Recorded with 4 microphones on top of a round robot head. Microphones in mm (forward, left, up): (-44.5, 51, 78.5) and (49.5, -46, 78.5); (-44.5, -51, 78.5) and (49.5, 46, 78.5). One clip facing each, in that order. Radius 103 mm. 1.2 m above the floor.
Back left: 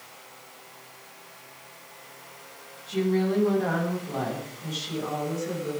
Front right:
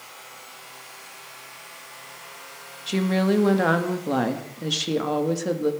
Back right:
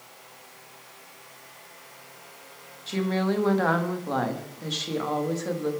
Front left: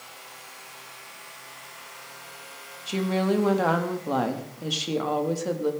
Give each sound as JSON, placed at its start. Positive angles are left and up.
{"t": 2.9, "sound": "a woman speaking", "azimuth_deg": -30, "distance_m": 2.0}